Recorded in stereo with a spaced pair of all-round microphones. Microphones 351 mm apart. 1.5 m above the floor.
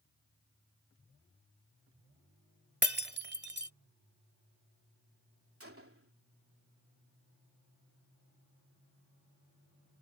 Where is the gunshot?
40° right (ahead or behind).